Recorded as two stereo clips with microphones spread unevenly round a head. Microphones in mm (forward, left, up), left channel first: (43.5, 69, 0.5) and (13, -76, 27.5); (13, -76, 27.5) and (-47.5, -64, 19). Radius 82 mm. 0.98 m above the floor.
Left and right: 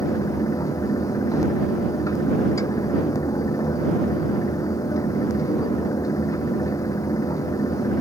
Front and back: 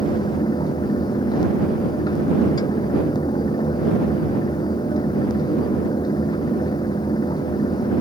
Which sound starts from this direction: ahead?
A fan, at 0.0 s.